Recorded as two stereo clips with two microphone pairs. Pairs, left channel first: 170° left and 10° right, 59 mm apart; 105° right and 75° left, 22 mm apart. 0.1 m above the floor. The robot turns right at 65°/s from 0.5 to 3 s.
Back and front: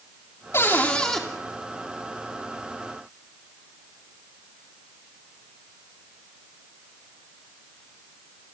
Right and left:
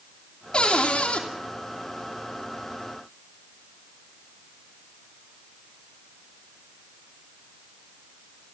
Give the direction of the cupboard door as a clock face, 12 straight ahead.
5 o'clock.